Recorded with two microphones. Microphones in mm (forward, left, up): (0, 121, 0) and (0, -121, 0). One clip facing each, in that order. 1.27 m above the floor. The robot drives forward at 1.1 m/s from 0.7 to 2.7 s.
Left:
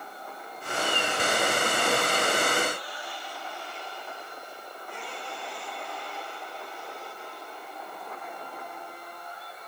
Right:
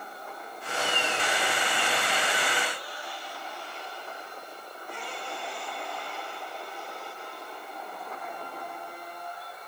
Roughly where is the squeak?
I don't hear a squeak.